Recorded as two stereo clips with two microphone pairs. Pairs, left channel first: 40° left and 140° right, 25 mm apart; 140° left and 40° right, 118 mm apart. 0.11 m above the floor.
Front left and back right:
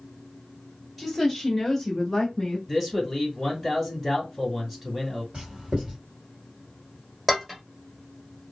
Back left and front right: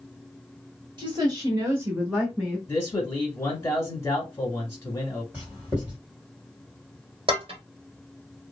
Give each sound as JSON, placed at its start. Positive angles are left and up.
{"t": 1.0, "sound": "a woman speaking", "azimuth_deg": -65, "distance_m": 1.6}
{"t": 2.7, "sound": "a man speaking", "azimuth_deg": 155, "distance_m": 1.2}
{"t": 5.3, "sound": "writing", "azimuth_deg": -110, "distance_m": 2.0}
{"t": 7.3, "sound": "dishes clattering", "azimuth_deg": -60, "distance_m": 1.3}